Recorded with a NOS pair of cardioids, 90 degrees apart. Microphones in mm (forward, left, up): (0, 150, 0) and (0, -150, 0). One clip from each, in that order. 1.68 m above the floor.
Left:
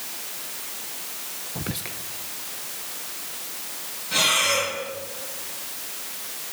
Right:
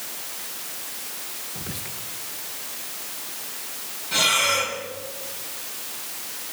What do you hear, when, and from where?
1.6 s whispering: 45° left, 1.6 m
4.1 s breathing: straight ahead, 10 m